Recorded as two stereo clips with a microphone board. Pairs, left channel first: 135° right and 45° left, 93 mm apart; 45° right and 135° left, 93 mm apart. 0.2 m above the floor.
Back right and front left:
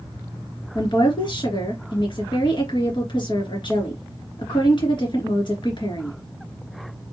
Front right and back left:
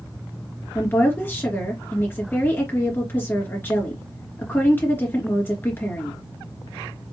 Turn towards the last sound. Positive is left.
turn(degrees=-110)